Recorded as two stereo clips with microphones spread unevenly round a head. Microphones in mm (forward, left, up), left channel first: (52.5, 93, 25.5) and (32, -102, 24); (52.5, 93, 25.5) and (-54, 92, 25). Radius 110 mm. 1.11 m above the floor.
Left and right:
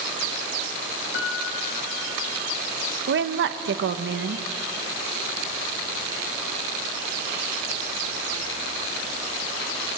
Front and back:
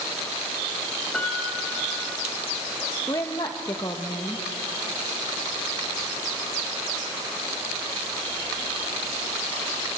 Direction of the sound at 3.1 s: 70° right.